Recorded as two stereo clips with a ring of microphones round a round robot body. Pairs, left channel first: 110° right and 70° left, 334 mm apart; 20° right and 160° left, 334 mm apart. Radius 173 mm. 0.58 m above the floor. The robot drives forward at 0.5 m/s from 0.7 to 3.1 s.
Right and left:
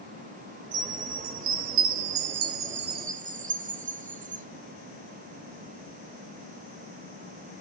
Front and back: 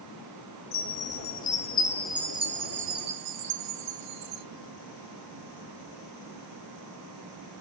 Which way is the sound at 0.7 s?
25° left.